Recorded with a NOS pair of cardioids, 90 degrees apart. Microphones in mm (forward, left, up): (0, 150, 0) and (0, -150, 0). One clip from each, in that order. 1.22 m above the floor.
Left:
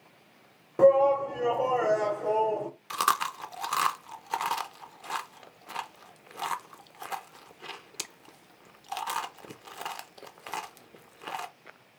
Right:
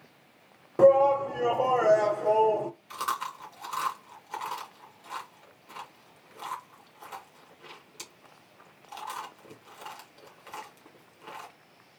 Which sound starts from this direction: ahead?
A shout, at 0.8 s.